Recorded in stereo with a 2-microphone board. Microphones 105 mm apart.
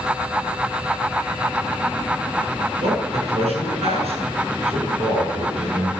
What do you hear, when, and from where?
2.8 s a man speaking: 75° right (ahead or behind), 8 m